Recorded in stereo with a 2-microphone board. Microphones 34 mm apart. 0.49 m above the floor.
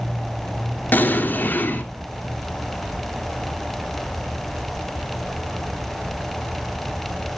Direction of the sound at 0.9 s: 70° left (ahead or behind).